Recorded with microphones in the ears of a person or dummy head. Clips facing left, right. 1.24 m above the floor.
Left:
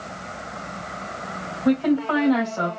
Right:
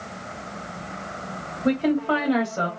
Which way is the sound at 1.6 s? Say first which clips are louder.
Left 2 dB; 30° right (ahead or behind).